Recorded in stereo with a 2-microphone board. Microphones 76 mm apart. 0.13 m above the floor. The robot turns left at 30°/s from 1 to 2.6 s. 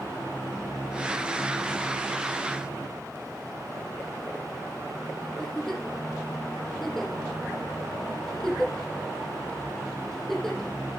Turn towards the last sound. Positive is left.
turn(degrees=5)  # may be behind; listen again after turning